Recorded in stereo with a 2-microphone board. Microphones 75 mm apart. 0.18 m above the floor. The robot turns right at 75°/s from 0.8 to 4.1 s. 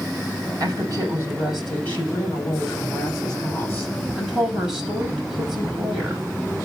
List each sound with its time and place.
0.6 s a woman speaking: 60° right, 7 m; by 6.2 s 170° right, 7 m